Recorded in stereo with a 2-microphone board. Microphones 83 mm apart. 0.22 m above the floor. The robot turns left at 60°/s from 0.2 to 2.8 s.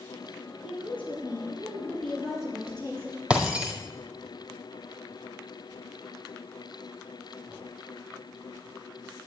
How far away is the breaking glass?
About 1.9 m.